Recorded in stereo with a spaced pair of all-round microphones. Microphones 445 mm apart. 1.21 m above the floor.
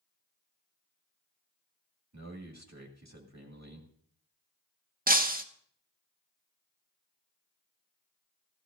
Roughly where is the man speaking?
Right.